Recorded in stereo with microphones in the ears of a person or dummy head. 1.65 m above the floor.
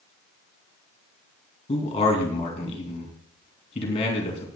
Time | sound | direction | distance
1.7 | a man speaking | 35° left (ahead or behind) | 2.5 m